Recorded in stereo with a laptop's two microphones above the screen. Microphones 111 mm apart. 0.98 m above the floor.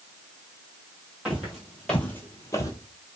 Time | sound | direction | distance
1.2 | footsteps | 5° right (ahead or behind) | 1.4 m